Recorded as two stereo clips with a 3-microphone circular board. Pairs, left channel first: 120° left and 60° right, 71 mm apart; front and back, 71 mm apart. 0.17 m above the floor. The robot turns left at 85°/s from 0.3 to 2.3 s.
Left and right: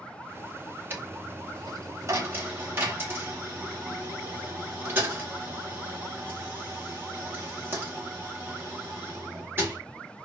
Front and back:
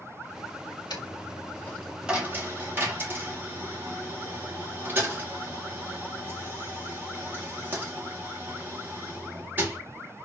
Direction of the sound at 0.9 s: Straight ahead.